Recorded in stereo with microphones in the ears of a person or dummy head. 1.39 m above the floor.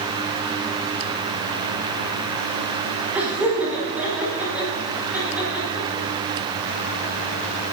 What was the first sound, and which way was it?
Laughter, 5° right (ahead or behind).